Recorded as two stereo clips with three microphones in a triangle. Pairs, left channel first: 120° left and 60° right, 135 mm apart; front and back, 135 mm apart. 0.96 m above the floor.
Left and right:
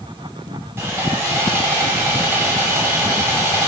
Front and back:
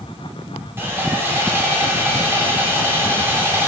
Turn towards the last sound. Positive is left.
turn(degrees=-120)